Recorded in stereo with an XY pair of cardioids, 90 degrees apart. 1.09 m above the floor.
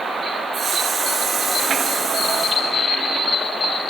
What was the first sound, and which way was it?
A hiss, 65° right.